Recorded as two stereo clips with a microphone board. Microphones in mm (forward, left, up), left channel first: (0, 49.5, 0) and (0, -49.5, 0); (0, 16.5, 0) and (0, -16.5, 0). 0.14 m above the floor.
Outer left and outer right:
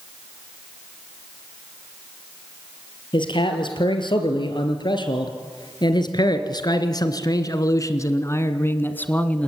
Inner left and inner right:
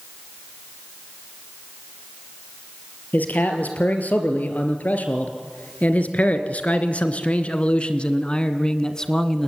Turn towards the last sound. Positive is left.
turn(degrees=10)  # may be behind; listen again after turning